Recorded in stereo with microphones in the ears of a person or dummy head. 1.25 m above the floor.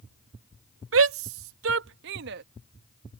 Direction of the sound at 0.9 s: 70° right (ahead or behind).